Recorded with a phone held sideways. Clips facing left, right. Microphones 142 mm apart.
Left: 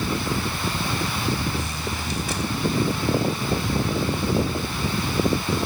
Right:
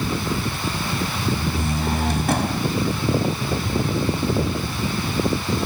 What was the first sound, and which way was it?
A door slam, 55° right (ahead or behind).